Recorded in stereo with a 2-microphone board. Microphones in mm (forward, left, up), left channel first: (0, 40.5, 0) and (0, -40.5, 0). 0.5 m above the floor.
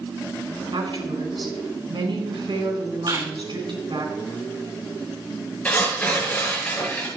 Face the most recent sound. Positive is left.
turn(degrees=20)  # may be behind; listen again after turning